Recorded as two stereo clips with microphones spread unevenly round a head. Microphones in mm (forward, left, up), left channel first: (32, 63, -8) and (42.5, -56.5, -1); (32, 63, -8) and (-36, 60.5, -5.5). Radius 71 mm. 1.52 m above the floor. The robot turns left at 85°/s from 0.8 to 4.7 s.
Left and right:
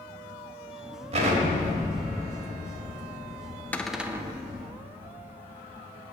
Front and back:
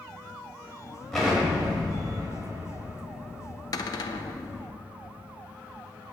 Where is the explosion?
85° right, 1.9 m; by 4.7 s 25° right, 1.9 m.